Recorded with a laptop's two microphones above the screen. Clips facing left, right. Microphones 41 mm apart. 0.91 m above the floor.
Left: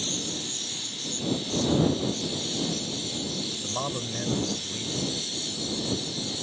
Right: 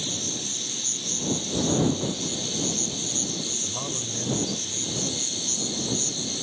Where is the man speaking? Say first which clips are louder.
Left 2 dB; 30° left (ahead or behind).